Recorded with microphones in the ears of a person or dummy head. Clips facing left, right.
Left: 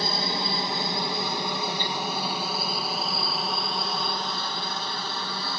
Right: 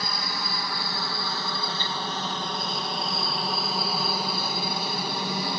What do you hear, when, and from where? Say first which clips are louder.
0.0 s a helicopter: left 5 dB; 25° left (ahead or behind); by 5.6 s 15° right (ahead or behind)